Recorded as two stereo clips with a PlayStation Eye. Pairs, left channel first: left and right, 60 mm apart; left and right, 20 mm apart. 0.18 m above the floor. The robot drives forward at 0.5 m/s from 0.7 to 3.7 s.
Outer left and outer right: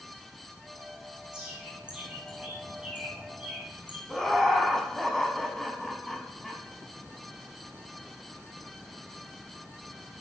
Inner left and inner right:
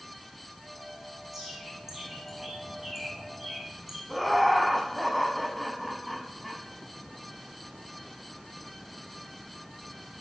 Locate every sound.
1.3 s a bird: 15° right (ahead or behind), 3.5 m; by 4.0 s 20° right (ahead or behind), 2.5 m
4.1 s laughter: 5° left (ahead or behind), 1.0 m